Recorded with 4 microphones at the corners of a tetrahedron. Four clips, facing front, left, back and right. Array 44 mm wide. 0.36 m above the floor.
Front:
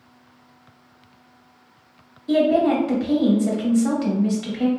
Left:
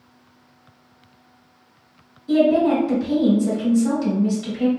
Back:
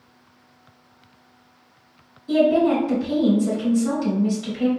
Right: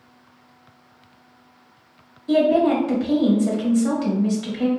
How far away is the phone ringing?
No phone ringing in this recording.